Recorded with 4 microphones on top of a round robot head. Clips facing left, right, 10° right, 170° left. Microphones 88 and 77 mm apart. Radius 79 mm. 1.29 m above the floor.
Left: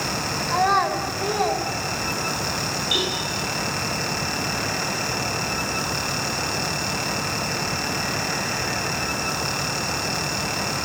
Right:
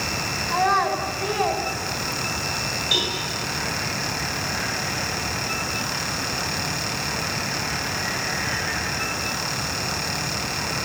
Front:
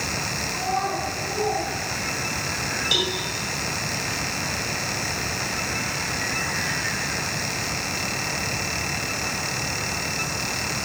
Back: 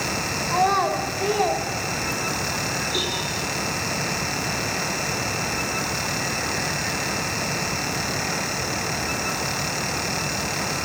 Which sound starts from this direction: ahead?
A cowbell, at 2.9 s.